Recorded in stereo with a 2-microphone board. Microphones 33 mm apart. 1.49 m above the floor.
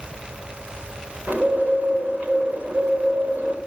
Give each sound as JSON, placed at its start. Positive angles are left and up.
{"t": 1.3, "sound": "a bird", "side_deg": -70, "distance_m": 4.5}